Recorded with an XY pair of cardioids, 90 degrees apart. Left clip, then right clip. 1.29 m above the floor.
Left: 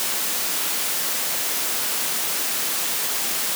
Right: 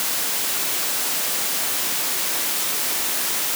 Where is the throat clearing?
No throat clearing in this recording.